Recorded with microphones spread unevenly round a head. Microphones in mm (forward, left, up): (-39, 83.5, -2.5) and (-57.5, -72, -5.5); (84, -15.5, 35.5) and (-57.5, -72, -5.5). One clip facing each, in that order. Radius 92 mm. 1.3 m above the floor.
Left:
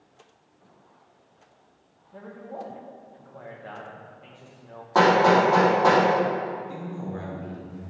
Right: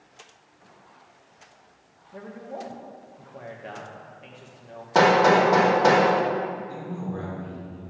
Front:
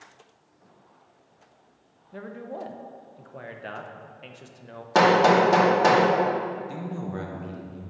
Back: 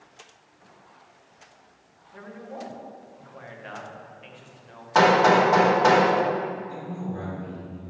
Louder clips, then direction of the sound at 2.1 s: Right 1 dB, front 3 dB; 20° right.